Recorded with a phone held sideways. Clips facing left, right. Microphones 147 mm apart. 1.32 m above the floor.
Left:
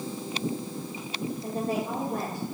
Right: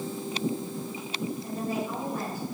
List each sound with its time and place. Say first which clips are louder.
1.4 s a woman speaking: left 5 dB; 75° left (ahead or behind), 3.5 m